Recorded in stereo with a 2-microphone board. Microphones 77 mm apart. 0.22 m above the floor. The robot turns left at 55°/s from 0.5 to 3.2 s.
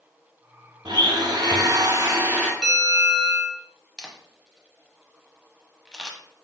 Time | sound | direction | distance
0.8 | a blender | 75° right | 0.6 m
2.6 | a bell | 170° left | 1.4 m
4.0 | a camera shutter | centre (ahead or behind) | 0.6 m